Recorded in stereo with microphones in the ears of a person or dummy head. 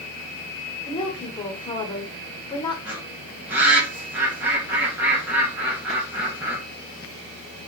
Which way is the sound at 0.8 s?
25° left (ahead or behind).